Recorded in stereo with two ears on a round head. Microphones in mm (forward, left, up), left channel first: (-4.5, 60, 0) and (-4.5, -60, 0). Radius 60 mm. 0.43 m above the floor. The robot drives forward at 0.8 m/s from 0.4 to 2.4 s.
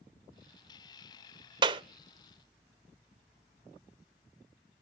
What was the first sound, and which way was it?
A clap, 35° right (ahead or behind).